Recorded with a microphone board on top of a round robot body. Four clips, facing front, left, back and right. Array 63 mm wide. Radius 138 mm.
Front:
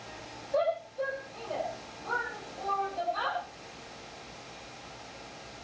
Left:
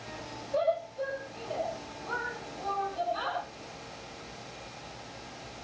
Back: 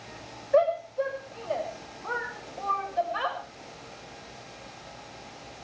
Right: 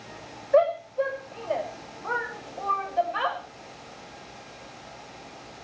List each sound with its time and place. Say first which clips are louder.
0.5 s a shout: right 8 dB, back 6 dB; 120° right, 5.5 m